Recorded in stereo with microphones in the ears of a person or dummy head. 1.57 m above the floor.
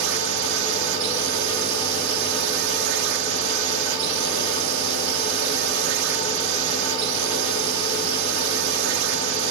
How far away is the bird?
I don't hear a bird.